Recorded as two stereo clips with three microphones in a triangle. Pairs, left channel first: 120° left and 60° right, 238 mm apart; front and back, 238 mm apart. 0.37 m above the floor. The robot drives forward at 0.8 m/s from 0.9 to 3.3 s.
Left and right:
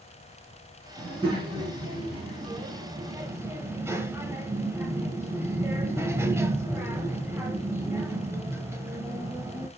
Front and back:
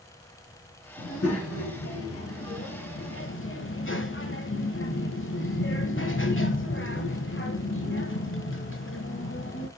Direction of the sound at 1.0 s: 5° left.